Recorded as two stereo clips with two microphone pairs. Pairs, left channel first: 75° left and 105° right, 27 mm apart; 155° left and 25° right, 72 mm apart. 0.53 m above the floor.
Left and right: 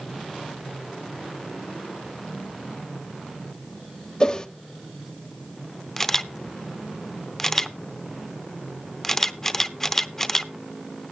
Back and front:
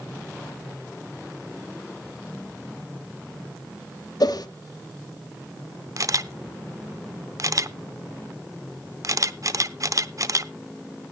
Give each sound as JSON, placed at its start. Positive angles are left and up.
{"t": 4.2, "sound": "a whoosh", "azimuth_deg": 135, "distance_m": 1.0}
{"t": 6.0, "sound": "a camera shutter", "azimuth_deg": 5, "distance_m": 0.6}